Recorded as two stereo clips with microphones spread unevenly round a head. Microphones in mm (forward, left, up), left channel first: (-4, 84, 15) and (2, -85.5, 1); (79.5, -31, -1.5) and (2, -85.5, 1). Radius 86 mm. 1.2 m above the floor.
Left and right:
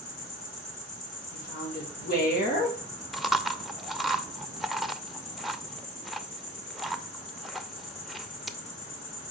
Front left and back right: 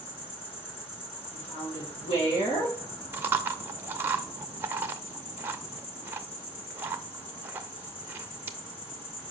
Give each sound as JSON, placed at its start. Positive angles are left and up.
{"t": 0.0, "sound": "an insect", "azimuth_deg": 40, "distance_m": 4.0}
{"t": 1.3, "sound": "a woman speaking", "azimuth_deg": 55, "distance_m": 3.5}
{"t": 3.1, "sound": "chewing", "azimuth_deg": 175, "distance_m": 0.6}